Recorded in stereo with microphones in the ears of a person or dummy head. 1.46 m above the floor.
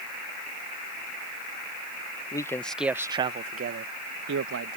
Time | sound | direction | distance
2.3 | a man speaking | 15° left (ahead or behind) | ?